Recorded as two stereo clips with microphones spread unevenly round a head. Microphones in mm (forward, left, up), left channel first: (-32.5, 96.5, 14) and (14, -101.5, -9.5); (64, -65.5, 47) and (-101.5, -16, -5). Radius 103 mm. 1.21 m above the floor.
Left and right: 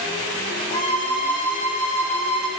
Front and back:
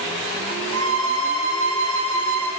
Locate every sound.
0.7 s a violin: 150° left, 2 m